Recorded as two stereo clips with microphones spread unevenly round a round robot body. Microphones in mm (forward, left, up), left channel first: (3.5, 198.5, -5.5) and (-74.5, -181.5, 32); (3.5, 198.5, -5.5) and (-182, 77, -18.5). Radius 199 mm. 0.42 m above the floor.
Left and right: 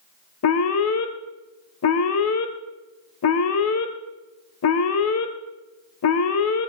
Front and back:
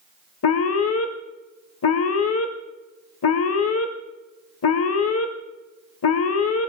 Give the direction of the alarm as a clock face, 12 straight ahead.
11 o'clock.